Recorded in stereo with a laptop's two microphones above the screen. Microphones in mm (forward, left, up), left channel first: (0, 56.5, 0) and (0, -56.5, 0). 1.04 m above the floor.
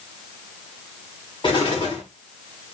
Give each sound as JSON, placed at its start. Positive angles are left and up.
{"t": 1.4, "sound": "an explosion", "side_deg": 45, "distance_m": 7.0}